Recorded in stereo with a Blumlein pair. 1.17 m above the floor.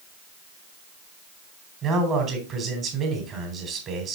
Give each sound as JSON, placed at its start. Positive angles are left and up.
{"t": 1.8, "sound": "a man speaking", "azimuth_deg": -25, "distance_m": 3.0}